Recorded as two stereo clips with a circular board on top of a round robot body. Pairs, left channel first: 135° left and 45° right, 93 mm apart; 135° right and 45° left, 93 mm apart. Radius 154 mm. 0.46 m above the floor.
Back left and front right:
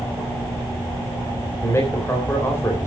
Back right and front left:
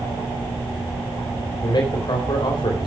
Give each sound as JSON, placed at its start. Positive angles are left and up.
{"t": 1.6, "sound": "a man speaking", "azimuth_deg": -165, "distance_m": 3.5}